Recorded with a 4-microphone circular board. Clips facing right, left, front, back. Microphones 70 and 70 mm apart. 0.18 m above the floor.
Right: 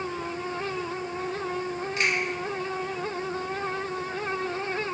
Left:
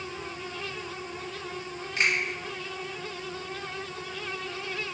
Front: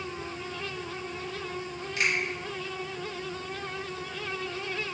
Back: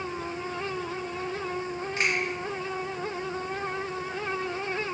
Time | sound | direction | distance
2.0 | a finger snap | 145° left | 1.9 m